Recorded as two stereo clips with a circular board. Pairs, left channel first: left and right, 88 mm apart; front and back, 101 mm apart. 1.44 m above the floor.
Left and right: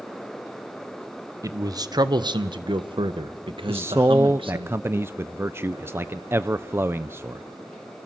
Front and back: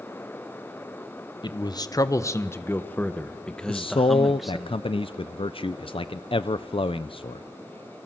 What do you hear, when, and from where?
1.4 s a man speaking: 40° right, 1.3 m; by 4.7 s 95° right, 2 m
3.7 s a man speaking: 25° right, 0.6 m